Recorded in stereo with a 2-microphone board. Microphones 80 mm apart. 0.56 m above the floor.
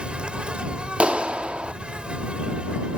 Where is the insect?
15° right (ahead or behind).